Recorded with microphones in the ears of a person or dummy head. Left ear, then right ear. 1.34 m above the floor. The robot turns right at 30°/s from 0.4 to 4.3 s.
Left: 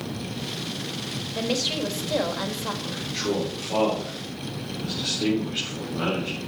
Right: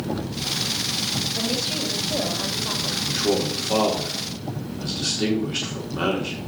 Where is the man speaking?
25° right (ahead or behind), 4 m; by 6.4 s 70° right (ahead or behind), 4 m.